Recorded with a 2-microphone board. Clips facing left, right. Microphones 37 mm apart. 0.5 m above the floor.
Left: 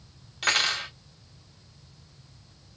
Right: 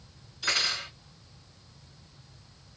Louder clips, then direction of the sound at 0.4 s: Left 4 dB; 60° left (ahead or behind).